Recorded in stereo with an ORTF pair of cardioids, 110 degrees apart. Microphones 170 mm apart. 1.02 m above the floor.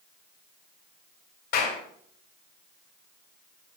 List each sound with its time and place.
1.5 s a clap: 65° left, 2.5 m